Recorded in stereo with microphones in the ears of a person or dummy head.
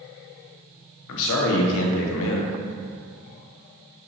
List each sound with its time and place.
1.1 s a man speaking: 75° left (ahead or behind), 0.7 m